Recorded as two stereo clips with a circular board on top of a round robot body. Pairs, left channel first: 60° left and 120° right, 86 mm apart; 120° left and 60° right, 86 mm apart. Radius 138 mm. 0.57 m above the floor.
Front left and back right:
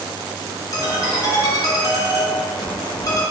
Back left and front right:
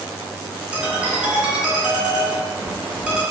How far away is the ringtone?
About 0.9 m.